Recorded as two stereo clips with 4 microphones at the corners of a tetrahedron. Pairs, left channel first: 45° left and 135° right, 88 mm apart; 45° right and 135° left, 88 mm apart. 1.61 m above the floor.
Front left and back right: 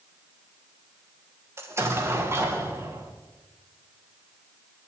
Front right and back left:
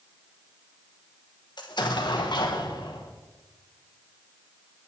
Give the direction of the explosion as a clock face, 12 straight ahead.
3 o'clock.